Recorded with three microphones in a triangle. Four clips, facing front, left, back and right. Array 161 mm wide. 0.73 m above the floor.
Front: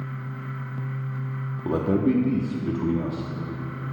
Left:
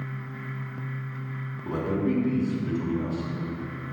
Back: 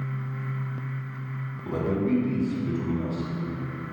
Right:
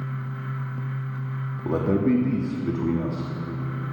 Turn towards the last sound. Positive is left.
turn(degrees=-40)